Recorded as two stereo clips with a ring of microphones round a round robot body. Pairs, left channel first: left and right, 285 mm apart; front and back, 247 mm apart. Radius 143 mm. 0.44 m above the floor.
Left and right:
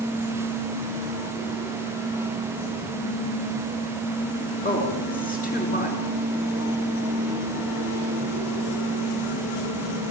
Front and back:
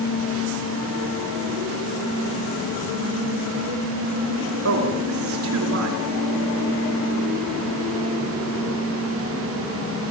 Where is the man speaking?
155° left, 6 m.